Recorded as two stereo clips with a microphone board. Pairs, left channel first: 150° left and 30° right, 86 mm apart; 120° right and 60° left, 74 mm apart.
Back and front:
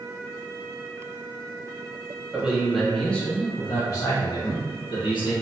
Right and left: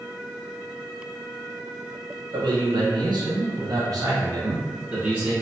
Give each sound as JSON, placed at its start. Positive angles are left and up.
{"t": 2.3, "sound": "a man speaking", "azimuth_deg": 45, "distance_m": 1.2}